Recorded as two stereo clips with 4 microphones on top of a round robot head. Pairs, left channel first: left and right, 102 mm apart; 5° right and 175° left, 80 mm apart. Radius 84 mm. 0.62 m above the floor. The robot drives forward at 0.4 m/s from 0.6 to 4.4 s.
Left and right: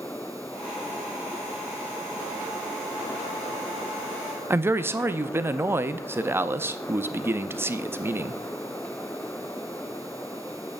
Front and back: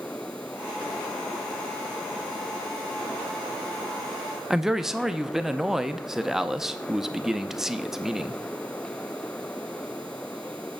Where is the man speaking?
110° right, 0.6 m.